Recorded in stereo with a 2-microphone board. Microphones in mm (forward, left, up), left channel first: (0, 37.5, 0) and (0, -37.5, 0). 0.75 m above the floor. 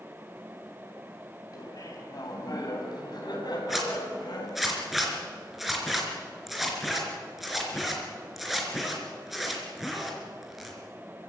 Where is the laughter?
55° left (ahead or behind), 5 m; by 4.7 s 70° left (ahead or behind), 6 m.